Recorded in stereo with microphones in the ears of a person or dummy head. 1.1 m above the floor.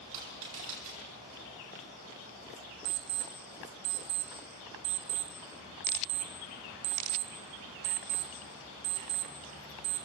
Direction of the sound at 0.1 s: 40° right (ahead or behind).